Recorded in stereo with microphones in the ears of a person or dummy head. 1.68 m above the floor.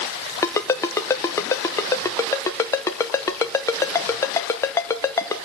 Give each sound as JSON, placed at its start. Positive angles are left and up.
{"t": 0.4, "sound": "a ringtone", "side_deg": 10, "distance_m": 0.8}